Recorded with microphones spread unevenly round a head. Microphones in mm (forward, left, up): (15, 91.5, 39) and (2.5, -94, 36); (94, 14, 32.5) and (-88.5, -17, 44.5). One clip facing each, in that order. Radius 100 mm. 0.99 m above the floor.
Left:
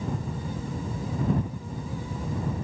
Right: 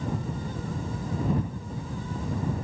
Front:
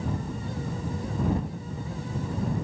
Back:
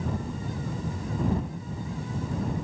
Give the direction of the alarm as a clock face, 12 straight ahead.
I don't hear an alarm.